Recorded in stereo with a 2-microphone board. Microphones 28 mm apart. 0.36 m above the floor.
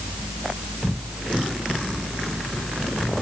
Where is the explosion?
I don't hear an explosion.